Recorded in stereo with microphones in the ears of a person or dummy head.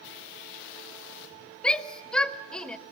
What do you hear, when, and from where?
1.6 s a shout: 5° left (ahead or behind), 1.1 m